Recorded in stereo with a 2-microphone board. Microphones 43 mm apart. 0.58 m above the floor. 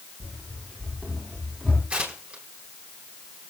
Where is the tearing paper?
25° right (ahead or behind), 4 m.